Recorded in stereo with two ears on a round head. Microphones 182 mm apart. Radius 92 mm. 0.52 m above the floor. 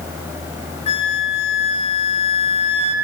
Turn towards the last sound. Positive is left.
turn(degrees=30)  # may be behind; listen again after turning